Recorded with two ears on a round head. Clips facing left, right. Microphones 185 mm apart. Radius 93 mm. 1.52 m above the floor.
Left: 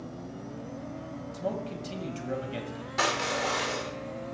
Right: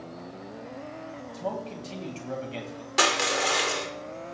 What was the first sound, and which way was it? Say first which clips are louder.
A man speaking: even; 15° left (ahead or behind).